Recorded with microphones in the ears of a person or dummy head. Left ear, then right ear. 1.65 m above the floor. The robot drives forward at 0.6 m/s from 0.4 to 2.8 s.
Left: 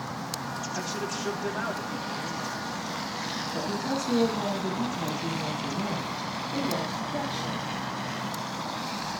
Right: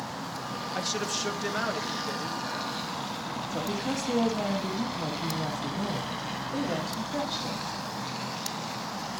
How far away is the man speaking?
About 1.8 m.